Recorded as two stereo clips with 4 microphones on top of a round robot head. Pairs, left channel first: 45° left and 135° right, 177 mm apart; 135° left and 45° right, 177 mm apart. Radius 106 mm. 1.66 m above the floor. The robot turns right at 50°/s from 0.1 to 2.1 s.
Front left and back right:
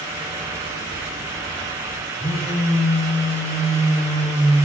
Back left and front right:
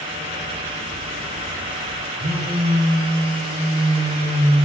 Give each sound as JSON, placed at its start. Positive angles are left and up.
{"t": 2.2, "sound": "a phone buzzing", "azimuth_deg": -25, "distance_m": 0.6}